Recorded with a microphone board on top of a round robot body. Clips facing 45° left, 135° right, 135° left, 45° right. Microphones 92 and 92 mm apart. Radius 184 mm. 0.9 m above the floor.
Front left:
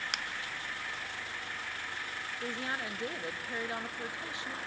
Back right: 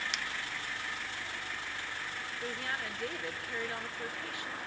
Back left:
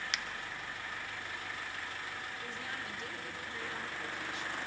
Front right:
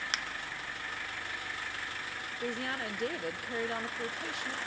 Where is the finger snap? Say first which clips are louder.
Even, front right 3 dB; 5° left, 0.9 m.